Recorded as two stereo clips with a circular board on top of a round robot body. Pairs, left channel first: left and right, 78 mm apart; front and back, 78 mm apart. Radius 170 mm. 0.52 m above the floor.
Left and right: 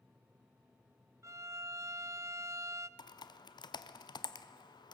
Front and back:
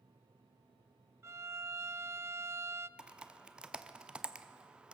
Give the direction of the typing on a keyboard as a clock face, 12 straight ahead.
9 o'clock.